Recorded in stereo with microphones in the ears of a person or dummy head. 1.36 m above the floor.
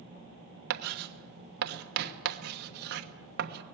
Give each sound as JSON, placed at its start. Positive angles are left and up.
{"t": 0.7, "sound": "writing", "side_deg": -60, "distance_m": 1.3}